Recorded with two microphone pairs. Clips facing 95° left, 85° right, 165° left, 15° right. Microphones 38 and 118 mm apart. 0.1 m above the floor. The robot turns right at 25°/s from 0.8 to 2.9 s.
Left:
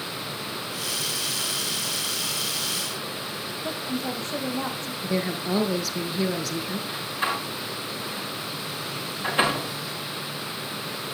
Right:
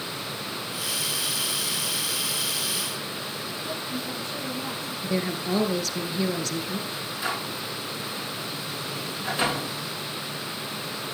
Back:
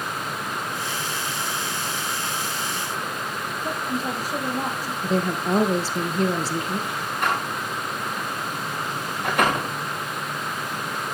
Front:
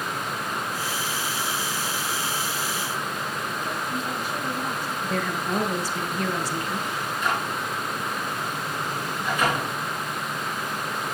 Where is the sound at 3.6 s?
115° left, 4 m.